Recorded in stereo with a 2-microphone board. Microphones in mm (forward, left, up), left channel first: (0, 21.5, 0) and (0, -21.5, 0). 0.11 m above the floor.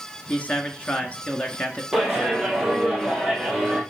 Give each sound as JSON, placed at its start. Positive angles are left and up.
{"t": 0.3, "sound": "a man speaking", "side_deg": 35, "distance_m": 1.3}
{"t": 1.9, "sound": "a clap", "side_deg": -5, "distance_m": 3.0}